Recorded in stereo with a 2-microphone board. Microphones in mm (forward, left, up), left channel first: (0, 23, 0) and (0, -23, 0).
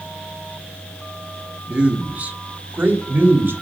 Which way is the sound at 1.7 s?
20° right (ahead or behind).